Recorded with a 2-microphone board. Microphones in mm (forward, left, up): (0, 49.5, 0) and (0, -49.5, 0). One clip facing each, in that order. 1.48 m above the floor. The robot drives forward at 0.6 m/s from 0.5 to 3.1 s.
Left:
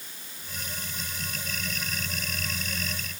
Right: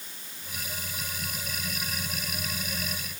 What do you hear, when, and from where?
Only background noise.